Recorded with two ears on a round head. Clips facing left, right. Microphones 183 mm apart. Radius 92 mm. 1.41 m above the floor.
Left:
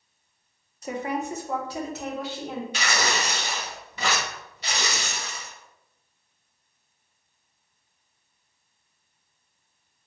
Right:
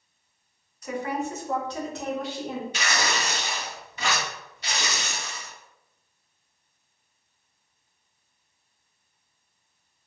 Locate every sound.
0.8 s a woman speaking: 25° left (ahead or behind), 0.7 m; by 2.6 s centre (ahead or behind), 1.6 m
2.7 s tearing paper: 75° left (ahead or behind), 1.2 m